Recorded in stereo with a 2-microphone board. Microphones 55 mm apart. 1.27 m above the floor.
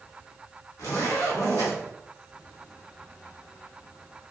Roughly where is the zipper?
Left.